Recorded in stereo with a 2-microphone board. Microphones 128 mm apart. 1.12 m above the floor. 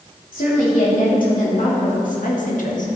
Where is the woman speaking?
80° left, 3 m; by 3.0 s 70° left (ahead or behind), 1.2 m.